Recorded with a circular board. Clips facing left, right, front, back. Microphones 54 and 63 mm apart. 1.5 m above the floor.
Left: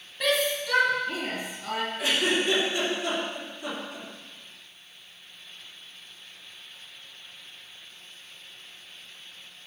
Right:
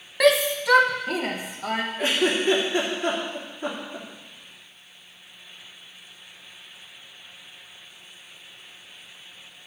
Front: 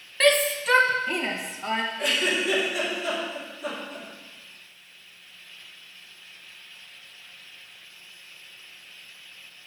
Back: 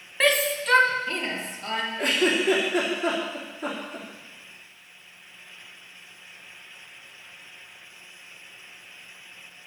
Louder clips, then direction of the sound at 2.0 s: Right 2 dB, back 7 dB; 135° right.